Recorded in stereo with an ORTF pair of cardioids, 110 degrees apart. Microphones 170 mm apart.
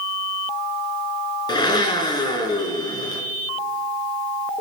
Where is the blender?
25° left, 4 m.